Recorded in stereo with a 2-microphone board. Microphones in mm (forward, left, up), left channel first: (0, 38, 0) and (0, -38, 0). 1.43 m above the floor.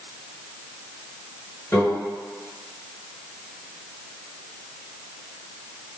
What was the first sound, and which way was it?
A microwave, 35° left (ahead or behind).